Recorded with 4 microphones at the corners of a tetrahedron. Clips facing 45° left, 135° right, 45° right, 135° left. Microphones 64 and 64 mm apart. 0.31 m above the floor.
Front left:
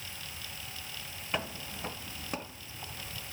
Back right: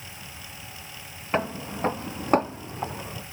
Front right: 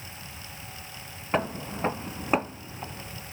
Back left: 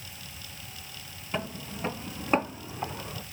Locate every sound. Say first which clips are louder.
1.3 s footsteps: back right 9 dB, front right 6 dB; 80° right, 0.8 m; by 3.2 s 175° right, 0.8 m